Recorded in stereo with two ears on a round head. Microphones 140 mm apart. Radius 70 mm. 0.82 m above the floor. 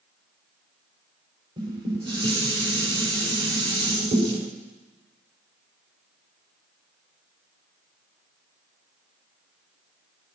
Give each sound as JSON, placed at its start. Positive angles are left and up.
{"t": 1.6, "sound": "dishes clattering", "side_deg": -30, "distance_m": 5.0}